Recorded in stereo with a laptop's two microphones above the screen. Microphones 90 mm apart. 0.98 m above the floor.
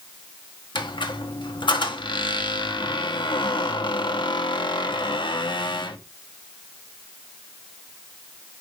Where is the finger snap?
I don't hear a finger snap.